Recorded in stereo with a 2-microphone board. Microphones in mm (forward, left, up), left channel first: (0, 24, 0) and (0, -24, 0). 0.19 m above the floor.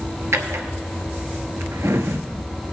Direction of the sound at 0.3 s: 70° right (ahead or behind).